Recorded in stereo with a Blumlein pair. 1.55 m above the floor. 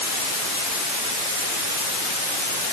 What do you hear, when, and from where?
Only background noise.